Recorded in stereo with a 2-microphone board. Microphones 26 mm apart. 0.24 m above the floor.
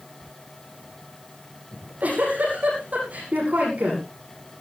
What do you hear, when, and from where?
1.7 s a giggle: 65° right (ahead or behind), 9.5 m